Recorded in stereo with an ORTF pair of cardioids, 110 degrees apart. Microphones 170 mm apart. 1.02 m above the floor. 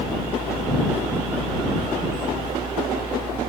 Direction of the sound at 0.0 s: 30° right.